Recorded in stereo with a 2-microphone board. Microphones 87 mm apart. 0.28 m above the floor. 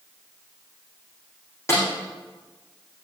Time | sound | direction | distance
1.7 | a snare drum | 30° left (ahead or behind) | 7 m